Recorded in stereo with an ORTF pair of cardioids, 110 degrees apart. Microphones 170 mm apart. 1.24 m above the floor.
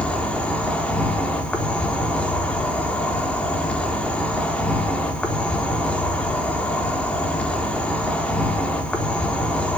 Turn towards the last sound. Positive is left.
turn(degrees=10)